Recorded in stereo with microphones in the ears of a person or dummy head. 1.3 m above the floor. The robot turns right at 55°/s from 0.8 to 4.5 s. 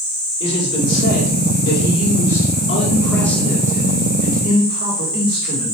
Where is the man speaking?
25° left, 5 m; by 5.8 s 135° right, 5 m.